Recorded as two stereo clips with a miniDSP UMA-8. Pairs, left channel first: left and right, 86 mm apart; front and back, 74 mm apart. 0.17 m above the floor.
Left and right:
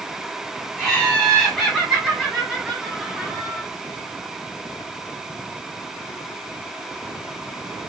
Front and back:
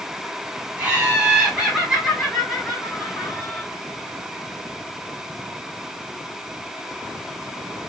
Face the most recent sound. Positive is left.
turn(degrees=-25)